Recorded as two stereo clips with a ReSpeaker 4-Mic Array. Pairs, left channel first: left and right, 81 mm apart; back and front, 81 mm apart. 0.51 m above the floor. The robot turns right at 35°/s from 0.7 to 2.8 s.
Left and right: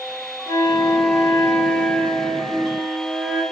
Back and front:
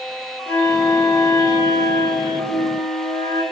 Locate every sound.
0.5 s a flute: 120° left, 3 m; by 3.4 s 165° right, 3 m